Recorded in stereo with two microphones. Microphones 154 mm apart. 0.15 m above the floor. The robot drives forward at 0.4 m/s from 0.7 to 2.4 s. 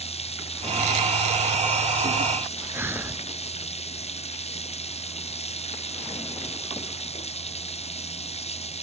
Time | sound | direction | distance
0.0 | running water | 45° left (ahead or behind) | ?
2.7 | breathing | 15° right (ahead or behind) | ?